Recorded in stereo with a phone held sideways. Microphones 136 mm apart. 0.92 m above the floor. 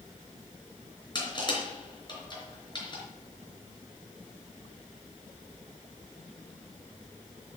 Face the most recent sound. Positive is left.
turn(degrees=35)  # may be behind; listen again after turning